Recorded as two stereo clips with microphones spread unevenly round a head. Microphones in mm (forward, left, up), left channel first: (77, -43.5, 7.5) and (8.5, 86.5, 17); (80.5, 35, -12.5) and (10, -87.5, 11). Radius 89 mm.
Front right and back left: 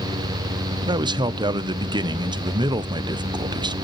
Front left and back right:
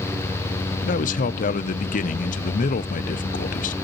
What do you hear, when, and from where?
0.8 s a man speaking: 55° left, 0.6 m